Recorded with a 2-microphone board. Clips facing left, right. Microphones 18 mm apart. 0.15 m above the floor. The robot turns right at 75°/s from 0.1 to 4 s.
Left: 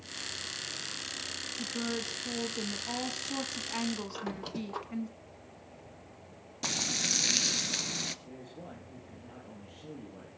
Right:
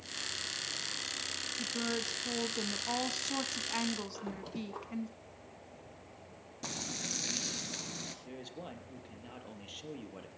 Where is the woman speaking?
Centre (ahead or behind), 1.2 m.